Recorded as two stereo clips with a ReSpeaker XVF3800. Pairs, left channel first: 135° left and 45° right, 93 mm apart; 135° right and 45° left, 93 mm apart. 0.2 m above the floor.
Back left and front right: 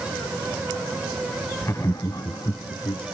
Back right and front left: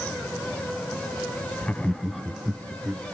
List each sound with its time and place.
1.6 s laughter: 165° left, 1.1 m; by 3.0 s 120° left, 1.9 m